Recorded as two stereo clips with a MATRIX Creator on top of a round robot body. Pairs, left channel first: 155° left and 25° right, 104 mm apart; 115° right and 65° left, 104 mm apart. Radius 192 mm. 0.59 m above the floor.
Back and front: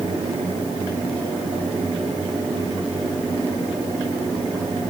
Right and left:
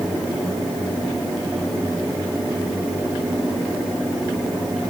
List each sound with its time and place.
Only background noise.